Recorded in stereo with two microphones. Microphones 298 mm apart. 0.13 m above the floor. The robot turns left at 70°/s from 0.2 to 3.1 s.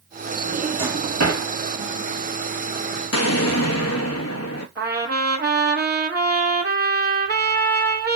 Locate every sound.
0.4 s a drawer: 10° left (ahead or behind), 1.8 m; by 1.4 s 60° right (ahead or behind), 1.8 m
3.1 s an explosion: 55° left (ahead or behind), 0.6 m
4.8 s a trumpet: 35° right (ahead or behind), 0.7 m